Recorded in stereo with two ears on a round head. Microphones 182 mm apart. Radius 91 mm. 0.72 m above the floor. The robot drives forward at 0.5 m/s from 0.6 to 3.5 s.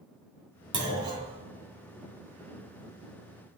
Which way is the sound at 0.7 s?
25° right (ahead or behind).